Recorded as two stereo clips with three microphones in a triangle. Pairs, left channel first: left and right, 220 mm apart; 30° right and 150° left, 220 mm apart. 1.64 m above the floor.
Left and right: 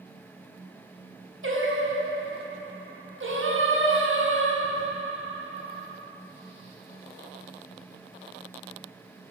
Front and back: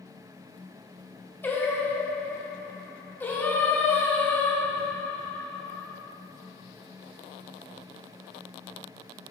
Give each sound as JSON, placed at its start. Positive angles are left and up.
{"t": 1.4, "sound": "singing", "azimuth_deg": -110, "distance_m": 1.3}